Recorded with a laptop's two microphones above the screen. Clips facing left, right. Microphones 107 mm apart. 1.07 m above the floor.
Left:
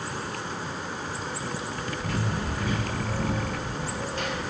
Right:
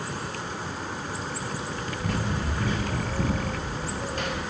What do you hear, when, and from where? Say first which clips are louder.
2.0 s running footsteps: right 2 dB; 15° right (ahead or behind), 1.9 m; by 4.4 s 45° right (ahead or behind), 1.5 m